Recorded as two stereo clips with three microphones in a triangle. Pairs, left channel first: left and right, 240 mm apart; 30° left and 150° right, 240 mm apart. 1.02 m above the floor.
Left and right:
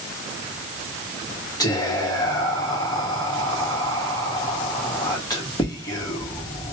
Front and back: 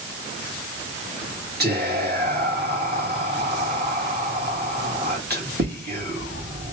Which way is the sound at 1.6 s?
165° left.